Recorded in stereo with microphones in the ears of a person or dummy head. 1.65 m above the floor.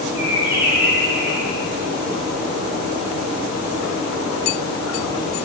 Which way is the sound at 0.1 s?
10° right (ahead or behind).